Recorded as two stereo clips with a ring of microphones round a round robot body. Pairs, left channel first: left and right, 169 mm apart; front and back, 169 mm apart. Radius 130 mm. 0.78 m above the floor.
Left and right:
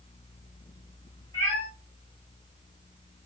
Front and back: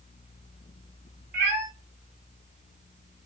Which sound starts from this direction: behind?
A cat meowing, at 1.3 s.